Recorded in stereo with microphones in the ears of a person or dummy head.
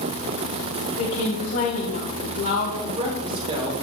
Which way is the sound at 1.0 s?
60° left (ahead or behind).